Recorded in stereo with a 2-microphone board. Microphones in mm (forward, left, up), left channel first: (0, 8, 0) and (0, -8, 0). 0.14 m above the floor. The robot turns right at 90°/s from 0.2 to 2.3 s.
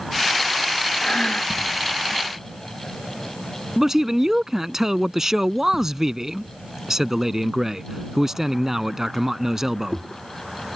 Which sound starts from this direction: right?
A man speaking, at 3.8 s.